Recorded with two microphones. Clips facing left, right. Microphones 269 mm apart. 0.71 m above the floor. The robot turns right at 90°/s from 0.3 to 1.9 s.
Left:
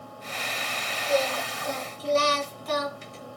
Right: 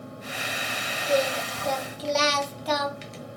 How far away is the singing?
About 1.5 m.